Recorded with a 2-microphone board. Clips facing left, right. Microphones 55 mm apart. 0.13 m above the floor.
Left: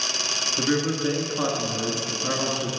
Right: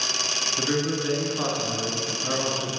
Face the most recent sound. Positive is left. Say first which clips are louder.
# left 2 dB
turn(degrees=15)  # may be behind; listen again after turning